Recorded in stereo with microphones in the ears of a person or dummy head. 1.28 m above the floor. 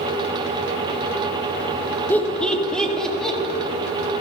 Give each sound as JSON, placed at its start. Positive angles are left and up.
{"t": 2.1, "sound": "laughter", "side_deg": 10, "distance_m": 1.4}